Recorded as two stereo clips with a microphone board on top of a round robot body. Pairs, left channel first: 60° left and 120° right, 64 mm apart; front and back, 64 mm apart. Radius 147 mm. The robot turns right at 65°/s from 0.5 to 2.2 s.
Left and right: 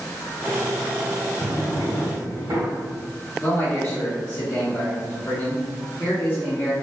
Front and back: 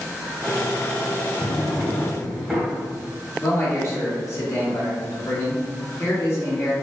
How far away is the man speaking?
About 1.7 m.